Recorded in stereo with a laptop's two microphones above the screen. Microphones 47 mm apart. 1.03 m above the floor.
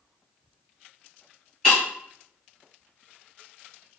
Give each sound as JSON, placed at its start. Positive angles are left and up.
{"t": 1.6, "sound": "breaking glass", "side_deg": 10, "distance_m": 1.7}